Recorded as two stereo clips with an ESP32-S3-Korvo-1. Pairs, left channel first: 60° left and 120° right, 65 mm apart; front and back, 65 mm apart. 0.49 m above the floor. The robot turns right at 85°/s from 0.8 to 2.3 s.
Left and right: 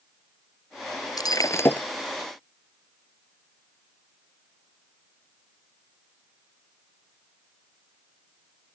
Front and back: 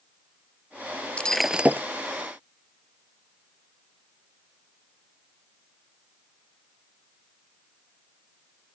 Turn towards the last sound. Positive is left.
turn(degrees=165)